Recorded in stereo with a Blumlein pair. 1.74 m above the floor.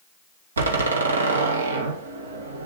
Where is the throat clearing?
I don't hear throat clearing.